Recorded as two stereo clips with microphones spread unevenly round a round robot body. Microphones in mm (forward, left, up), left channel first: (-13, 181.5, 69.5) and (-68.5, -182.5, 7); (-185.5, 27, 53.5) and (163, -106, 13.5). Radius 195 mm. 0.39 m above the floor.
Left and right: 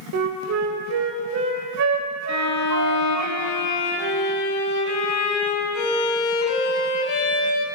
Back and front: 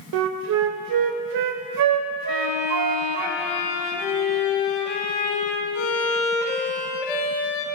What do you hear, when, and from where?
0.1 s a flute: 55° right, 0.5 m
2.3 s a violin: 130° left, 0.9 m